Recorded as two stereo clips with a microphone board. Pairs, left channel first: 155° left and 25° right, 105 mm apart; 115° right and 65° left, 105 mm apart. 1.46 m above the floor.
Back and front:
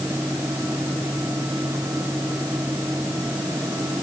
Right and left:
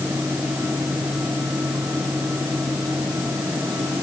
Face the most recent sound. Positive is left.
No sound to turn to.